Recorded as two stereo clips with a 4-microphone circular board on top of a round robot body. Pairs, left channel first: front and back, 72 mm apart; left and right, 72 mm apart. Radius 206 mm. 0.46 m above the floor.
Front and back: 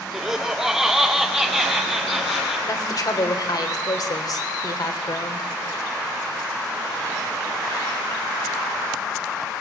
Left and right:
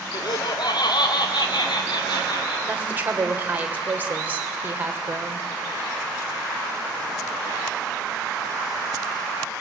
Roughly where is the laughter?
Left.